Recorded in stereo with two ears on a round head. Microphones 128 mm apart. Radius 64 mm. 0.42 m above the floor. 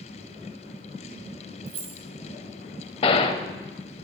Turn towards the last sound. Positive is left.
turn(degrees=40)  # may be behind; listen again after turning